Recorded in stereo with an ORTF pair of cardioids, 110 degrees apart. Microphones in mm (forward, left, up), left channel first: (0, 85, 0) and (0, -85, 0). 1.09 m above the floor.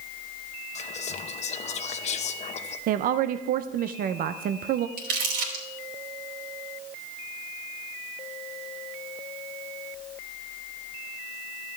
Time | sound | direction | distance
0.8 | whispering | 40° left | 0.9 m
2.9 | a woman speaking | 60° right | 0.5 m
5.0 | crumpling | 70° right | 3 m